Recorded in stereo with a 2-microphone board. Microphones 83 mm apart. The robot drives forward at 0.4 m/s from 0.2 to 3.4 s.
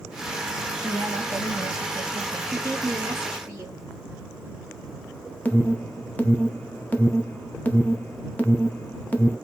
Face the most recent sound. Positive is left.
turn(degrees=20)  # may be behind; listen again after turning